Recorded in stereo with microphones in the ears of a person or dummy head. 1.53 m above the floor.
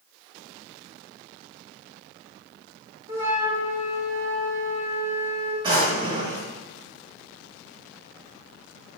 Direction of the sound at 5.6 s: 25° right (ahead or behind).